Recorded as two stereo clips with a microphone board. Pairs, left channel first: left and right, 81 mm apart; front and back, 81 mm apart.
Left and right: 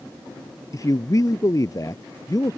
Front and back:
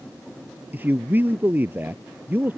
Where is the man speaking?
120° left.